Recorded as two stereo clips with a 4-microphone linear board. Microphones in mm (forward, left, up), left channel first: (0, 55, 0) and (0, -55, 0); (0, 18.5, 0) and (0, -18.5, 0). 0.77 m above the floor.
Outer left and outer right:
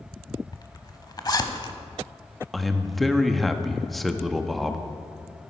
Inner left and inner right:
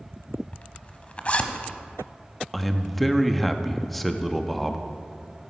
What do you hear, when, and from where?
0.5 s a zipper: 40° left (ahead or behind), 0.9 m
2.5 s a man speaking: centre (ahead or behind), 0.7 m